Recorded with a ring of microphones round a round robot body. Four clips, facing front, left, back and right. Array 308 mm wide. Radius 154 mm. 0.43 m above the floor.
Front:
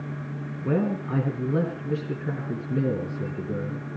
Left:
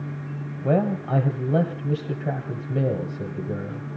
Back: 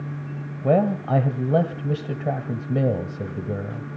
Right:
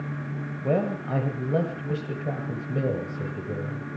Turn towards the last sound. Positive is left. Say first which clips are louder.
# left 3 dB, back 6 dB
turn(degrees=180)